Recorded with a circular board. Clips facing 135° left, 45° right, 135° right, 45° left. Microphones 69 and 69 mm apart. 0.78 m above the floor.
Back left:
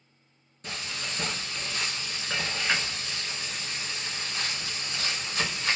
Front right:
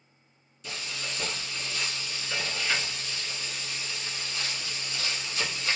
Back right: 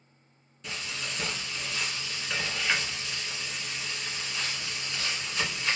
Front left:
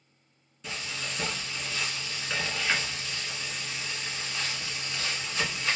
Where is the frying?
130° left, 1.2 m.